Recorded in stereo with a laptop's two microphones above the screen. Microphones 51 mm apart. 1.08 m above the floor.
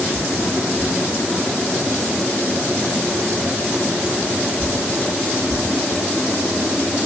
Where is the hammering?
No hammering in this recording.